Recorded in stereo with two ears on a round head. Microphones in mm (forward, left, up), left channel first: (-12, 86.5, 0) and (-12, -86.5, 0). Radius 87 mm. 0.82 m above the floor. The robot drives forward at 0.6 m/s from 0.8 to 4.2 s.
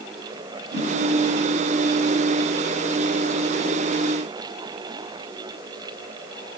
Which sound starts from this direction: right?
A whoosh, at 0.7 s.